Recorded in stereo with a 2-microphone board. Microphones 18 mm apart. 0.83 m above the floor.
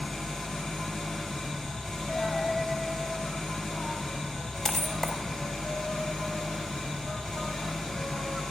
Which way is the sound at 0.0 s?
60° left (ahead or behind).